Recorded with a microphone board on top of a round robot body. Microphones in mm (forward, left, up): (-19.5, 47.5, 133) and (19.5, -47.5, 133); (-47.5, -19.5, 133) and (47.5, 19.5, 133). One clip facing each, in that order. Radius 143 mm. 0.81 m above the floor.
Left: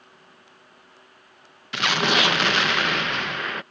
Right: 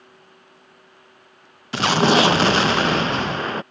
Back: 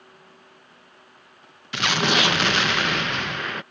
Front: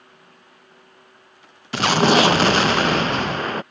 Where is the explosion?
20° right.